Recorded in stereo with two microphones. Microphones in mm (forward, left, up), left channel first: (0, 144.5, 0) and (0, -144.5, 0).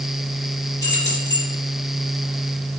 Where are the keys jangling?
35° left (ahead or behind), 5 m.